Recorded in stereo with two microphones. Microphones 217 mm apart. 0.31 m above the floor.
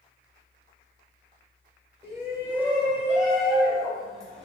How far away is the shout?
About 1.6 m.